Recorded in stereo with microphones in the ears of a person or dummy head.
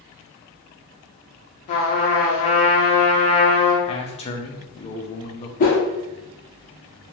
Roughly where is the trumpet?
Left.